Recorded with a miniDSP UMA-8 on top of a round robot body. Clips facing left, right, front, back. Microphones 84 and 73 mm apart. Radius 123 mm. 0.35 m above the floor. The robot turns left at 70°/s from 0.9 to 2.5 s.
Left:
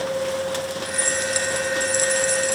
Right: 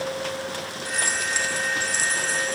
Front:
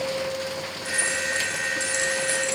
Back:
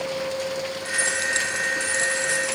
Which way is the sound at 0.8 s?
155° right.